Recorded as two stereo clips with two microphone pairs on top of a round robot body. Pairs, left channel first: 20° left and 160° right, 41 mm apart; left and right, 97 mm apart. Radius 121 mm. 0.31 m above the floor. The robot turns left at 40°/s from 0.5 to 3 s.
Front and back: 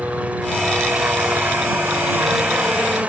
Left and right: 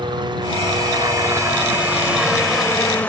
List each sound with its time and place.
0.0 s a helicopter: 110° right; by 3.1 s 155° left